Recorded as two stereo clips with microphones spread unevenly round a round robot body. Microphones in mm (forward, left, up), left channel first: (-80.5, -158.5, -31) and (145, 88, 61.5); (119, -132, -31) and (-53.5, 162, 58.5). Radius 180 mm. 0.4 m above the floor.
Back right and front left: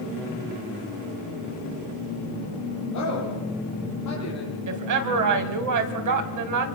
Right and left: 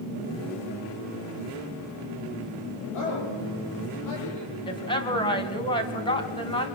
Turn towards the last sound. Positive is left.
turn(degrees=10)